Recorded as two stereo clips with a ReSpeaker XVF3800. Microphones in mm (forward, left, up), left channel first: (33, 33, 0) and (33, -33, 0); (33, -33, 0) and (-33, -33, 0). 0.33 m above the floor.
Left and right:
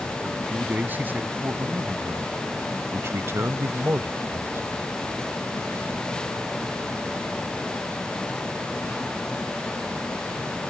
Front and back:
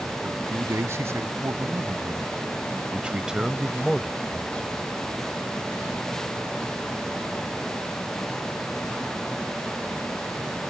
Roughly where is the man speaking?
Behind right.